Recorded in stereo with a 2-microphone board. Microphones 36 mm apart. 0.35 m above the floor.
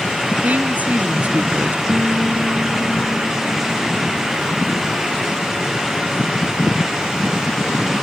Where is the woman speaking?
50° right (ahead or behind).